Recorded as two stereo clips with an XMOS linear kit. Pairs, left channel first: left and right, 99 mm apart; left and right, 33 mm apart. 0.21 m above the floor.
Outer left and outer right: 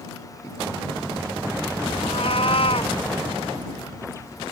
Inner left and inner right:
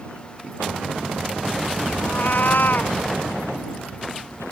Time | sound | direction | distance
2.0 | a cat meowing | 65° left (ahead or behind) | ?